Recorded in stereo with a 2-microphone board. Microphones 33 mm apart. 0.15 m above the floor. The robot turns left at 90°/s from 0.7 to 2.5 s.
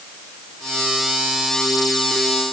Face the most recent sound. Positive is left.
No sound to turn to.